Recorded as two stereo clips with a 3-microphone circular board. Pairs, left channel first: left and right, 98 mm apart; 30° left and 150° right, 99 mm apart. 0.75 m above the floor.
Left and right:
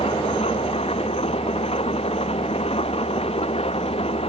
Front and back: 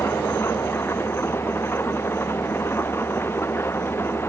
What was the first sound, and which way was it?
An engine running, 95° left.